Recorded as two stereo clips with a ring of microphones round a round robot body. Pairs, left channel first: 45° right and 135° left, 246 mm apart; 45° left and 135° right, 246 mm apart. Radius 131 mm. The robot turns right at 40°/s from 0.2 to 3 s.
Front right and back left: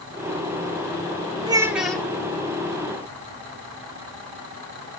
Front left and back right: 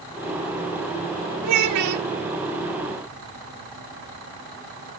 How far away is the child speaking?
About 2 m.